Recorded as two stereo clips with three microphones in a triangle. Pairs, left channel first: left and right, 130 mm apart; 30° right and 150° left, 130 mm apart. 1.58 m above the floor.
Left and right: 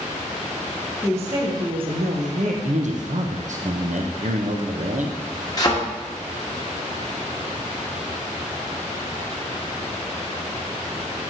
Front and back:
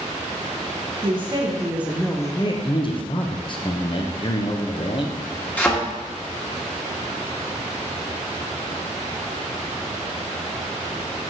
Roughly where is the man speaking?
Right.